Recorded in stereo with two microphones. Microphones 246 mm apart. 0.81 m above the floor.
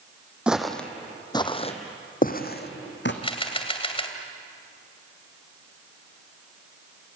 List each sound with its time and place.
0.5 s footsteps: 5° right (ahead or behind), 1.6 m; by 3.1 s 50° left (ahead or behind), 2 m
3.2 s a camera shutter: 25° left (ahead or behind), 2 m